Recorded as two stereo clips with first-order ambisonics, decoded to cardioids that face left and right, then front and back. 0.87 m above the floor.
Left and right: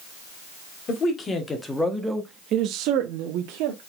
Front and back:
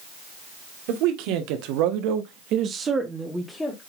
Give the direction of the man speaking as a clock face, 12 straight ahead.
7 o'clock.